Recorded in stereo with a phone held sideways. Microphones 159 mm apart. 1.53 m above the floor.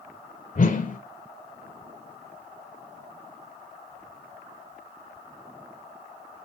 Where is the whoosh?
55° left (ahead or behind), 0.6 m.